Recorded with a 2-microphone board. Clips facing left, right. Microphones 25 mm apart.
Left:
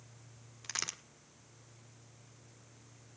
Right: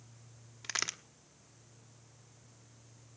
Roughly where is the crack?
Centre.